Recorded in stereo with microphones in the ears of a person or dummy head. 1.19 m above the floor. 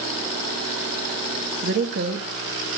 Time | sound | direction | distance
1.6 | a woman speaking | 55° right (ahead or behind) | 2.0 m